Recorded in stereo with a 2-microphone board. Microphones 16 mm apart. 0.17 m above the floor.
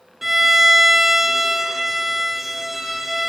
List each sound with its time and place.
0.2 s a violin: 20° right (ahead or behind), 0.5 m